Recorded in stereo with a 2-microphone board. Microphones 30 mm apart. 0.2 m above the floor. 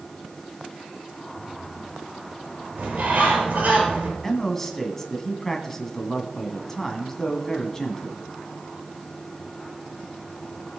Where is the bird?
55° right (ahead or behind), 5.5 m.